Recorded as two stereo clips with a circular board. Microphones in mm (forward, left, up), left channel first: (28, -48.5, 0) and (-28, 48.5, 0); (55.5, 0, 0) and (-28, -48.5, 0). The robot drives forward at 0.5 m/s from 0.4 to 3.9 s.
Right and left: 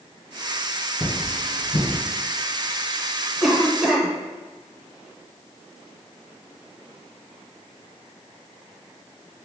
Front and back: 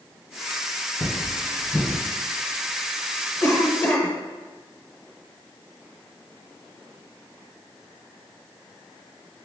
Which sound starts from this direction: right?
Cutlery clinking, at 1.0 s.